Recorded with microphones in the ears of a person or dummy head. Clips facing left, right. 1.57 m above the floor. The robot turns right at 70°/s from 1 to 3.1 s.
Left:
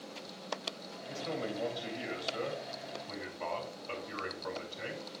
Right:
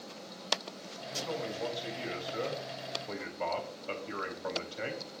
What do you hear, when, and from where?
1.1 s a man speaking: 105° left, 3.5 m; by 5.1 s 115° right, 3.5 m